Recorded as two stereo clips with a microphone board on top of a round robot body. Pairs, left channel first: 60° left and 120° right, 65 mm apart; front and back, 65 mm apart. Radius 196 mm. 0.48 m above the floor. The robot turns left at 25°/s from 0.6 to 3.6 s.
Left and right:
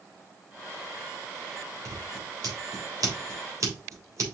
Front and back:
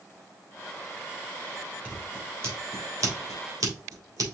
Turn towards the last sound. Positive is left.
turn(degrees=-155)